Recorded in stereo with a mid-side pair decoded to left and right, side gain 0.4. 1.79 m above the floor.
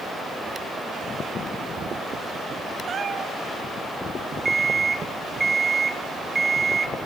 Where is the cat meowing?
50° right, 3 m.